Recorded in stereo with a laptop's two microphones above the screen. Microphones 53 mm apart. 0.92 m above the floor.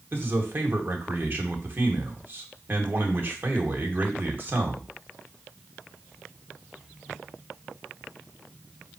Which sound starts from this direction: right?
A man speaking, at 0.1 s.